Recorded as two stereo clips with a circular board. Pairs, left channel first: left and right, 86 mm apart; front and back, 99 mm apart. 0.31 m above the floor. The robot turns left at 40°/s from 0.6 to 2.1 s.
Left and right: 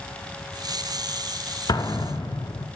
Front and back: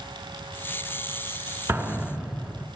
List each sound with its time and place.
1.7 s an explosion: 115° left, 0.5 m; by 2.7 s 100° left, 0.5 m